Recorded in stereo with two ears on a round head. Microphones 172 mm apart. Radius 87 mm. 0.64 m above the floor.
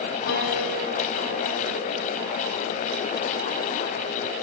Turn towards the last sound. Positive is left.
turn(degrees=60)  # may be behind; listen again after turning